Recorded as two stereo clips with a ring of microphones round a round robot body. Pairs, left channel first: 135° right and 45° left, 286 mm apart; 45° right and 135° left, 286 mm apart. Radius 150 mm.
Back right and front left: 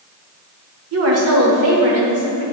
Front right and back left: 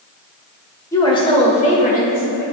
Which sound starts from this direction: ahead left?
A woman speaking, at 0.9 s.